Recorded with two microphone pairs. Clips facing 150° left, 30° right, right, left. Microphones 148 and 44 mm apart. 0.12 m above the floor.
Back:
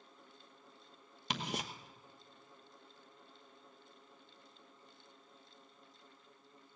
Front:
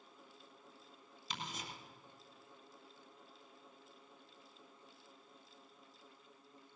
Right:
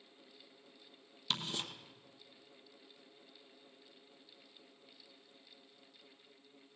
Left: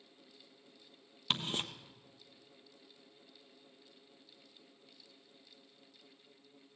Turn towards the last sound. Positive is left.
turn(degrees=140)